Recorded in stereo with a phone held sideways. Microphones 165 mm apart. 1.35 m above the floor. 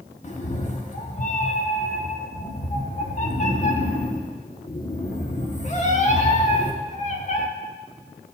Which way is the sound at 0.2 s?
40° left (ahead or behind).